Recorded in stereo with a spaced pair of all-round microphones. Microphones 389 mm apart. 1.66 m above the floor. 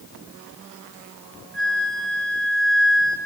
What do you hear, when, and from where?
1.5 s a flute: 30° left (ahead or behind), 5 m